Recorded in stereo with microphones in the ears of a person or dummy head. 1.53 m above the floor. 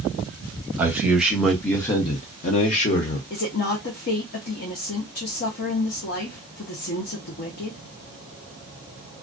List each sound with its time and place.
0.8 s a man speaking: 10° right (ahead or behind), 1.0 m; by 3.2 s 35° left (ahead or behind), 0.7 m
3.3 s a woman speaking: 55° left (ahead or behind), 0.7 m